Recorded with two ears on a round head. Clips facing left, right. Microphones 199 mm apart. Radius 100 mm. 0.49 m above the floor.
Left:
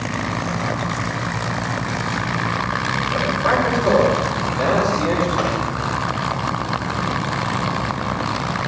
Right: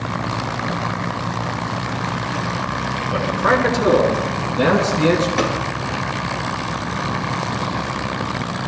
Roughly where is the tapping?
Right.